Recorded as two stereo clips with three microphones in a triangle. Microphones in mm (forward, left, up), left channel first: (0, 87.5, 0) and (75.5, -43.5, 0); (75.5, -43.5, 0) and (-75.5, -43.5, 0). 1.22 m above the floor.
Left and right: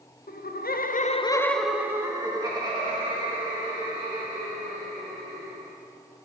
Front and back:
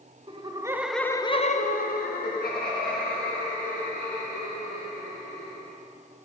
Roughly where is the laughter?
Behind left.